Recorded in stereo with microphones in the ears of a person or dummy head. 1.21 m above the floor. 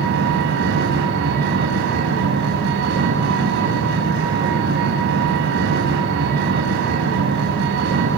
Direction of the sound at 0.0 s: 60° right (ahead or behind).